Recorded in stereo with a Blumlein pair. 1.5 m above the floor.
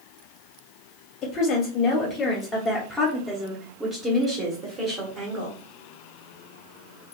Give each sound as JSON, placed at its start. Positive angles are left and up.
{"t": 1.2, "sound": "a woman speaking", "azimuth_deg": 40, "distance_m": 1.7}